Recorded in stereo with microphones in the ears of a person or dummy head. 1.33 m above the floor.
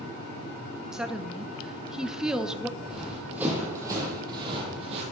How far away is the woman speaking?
About 0.8 m.